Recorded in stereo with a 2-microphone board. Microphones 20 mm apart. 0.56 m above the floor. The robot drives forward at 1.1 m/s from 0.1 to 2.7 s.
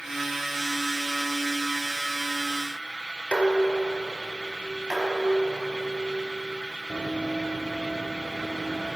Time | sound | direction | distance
3.3 | dishes clattering | 70° left (ahead or behind) | 1.3 m
4.9 | dishes clattering | 45° right (ahead or behind) | 3 m
6.9 | running footsteps | 70° right (ahead or behind) | 1.4 m